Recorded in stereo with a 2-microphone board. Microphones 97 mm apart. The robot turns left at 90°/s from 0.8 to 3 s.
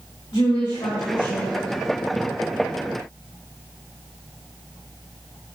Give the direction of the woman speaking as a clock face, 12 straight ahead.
9 o'clock.